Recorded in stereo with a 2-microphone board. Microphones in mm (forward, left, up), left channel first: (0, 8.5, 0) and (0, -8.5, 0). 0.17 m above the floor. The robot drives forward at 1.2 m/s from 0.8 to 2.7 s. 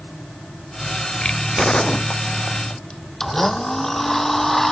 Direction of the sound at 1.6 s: 45° left (ahead or behind).